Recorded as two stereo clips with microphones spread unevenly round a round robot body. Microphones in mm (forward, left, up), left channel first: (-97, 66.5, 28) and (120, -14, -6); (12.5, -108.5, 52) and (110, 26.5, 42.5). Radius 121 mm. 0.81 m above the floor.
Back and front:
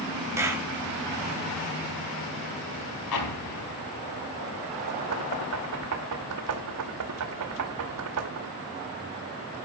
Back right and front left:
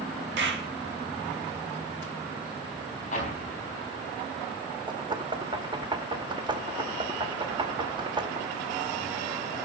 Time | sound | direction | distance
0.4 | a clap | 60° left | 3 m
3.1 | an explosion | 175° left | 4.5 m
4.9 | knocking | 10° right | 2 m